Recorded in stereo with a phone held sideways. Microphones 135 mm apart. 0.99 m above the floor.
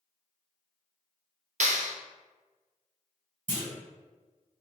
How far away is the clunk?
About 1.9 m.